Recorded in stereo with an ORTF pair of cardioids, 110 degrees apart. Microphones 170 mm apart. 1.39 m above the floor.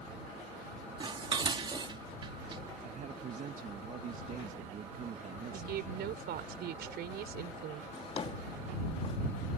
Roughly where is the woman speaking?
Right.